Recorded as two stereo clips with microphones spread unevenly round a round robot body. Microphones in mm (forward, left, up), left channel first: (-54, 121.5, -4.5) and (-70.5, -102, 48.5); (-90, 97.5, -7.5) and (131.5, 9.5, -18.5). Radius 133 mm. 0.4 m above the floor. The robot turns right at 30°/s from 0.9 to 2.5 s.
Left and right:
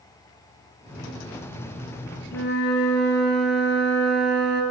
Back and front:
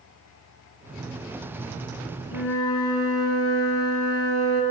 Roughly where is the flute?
Behind left.